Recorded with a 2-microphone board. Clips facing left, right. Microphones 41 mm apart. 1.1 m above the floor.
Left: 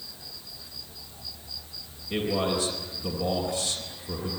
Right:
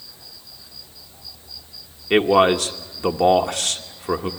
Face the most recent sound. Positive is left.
turn(degrees=-70)  # may be behind; listen again after turning